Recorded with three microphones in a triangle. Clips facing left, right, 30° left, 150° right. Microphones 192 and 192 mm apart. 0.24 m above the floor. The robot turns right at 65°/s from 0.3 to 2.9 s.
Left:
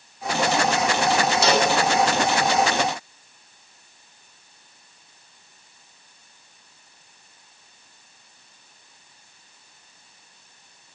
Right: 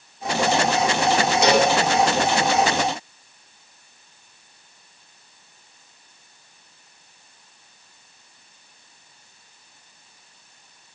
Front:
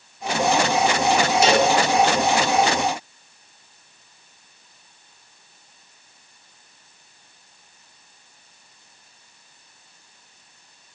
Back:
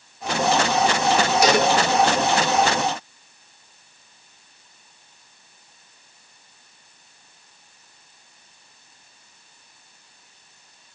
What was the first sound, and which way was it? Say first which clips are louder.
A cowbell: right 4 dB, front 1 dB; 25° right.